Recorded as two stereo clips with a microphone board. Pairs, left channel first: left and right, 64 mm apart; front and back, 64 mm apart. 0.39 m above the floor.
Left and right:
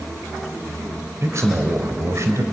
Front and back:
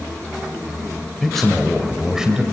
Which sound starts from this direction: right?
A man speaking, at 1.2 s.